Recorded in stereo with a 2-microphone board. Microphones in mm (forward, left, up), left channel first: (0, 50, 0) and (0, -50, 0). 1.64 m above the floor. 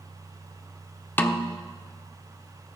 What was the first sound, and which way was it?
A snare drum, 20° left (ahead or behind).